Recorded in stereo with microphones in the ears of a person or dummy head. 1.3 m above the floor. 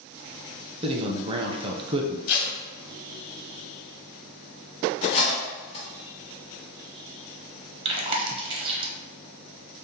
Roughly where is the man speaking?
Right.